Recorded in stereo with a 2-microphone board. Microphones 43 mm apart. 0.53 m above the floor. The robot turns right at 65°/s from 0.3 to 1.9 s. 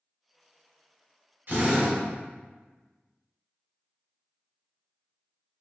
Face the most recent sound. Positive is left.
turn(degrees=-25)  # may be behind; listen again after turning